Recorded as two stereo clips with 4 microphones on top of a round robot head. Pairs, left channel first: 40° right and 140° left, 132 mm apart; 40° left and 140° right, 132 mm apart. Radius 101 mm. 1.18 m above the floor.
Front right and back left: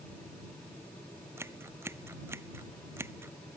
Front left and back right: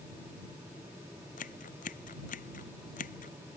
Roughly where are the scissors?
Left.